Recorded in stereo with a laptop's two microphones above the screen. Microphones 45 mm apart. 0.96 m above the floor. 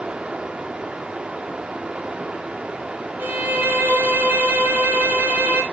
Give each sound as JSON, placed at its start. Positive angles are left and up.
{"t": 0.0, "sound": "running water", "side_deg": -25, "distance_m": 0.8}
{"t": 3.2, "sound": "a violin", "side_deg": -55, "distance_m": 1.8}